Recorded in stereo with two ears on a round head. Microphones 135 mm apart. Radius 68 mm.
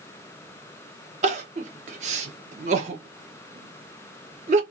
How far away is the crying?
About 0.9 m.